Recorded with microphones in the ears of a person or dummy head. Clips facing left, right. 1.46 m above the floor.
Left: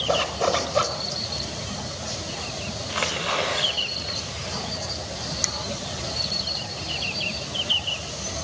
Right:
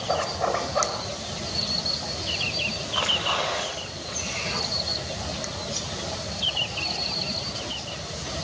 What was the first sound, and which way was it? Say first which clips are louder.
A zipper: left 3 dB; 50° left (ahead or behind).